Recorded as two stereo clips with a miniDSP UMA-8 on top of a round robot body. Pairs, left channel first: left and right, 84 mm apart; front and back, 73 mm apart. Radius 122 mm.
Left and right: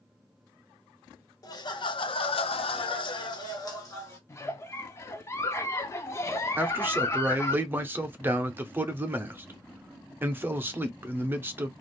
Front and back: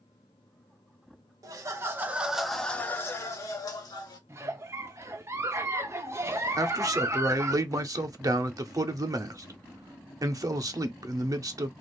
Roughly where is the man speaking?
Behind right.